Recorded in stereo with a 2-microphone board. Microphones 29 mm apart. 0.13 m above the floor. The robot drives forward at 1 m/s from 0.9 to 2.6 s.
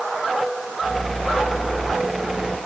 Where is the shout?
I don't hear a shout.